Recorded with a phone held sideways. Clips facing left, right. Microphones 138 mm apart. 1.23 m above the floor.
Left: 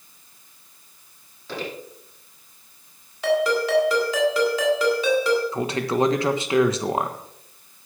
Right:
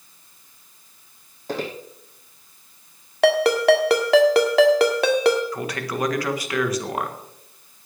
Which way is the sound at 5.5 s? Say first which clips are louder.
Left 4 dB; 25° left (ahead or behind).